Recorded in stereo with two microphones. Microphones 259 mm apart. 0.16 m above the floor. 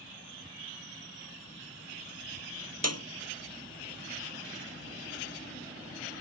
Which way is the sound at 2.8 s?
75° right (ahead or behind).